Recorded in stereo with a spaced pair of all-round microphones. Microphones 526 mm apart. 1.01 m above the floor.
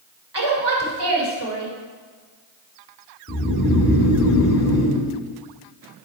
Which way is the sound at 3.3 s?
30° left (ahead or behind).